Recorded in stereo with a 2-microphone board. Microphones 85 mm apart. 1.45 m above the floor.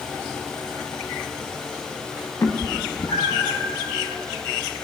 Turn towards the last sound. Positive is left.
turn(degrees=75)  # may be behind; listen again after turning